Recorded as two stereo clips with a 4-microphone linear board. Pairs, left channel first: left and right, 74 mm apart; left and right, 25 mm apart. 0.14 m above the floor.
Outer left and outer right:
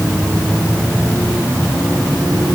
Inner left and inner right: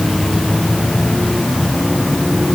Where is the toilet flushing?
I don't hear a toilet flushing.